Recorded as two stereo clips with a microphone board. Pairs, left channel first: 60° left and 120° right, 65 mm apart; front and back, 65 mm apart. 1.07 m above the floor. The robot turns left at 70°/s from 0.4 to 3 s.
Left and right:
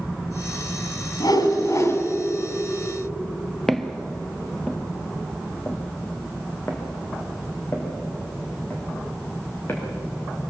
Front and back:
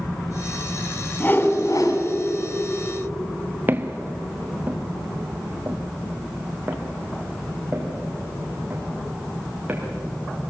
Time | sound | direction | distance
1.2 | a whoosh | 65° left | 2.5 m
3.7 | footsteps | 145° left | 1.3 m